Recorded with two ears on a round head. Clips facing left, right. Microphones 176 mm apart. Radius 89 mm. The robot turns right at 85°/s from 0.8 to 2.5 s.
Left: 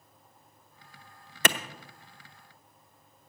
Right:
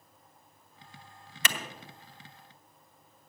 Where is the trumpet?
I don't hear a trumpet.